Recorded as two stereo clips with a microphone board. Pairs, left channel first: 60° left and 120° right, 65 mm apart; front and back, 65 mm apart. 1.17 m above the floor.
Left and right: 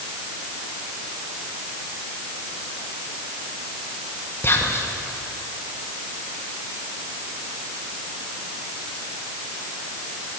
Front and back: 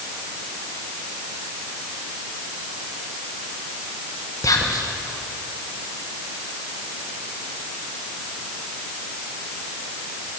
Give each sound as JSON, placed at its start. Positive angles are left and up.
{"t": 4.4, "sound": "whispering", "azimuth_deg": 10, "distance_m": 1.1}